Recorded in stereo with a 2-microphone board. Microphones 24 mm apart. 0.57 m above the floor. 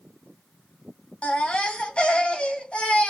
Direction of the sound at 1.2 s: 50° left (ahead or behind).